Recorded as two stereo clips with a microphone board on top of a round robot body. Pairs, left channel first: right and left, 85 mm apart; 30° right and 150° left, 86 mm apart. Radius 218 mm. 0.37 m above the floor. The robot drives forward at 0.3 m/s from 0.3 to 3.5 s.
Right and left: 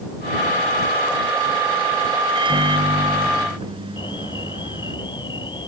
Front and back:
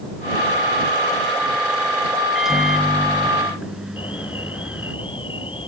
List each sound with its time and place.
2.4 s a microwave: 65° left
4.0 s an alarm: 55° right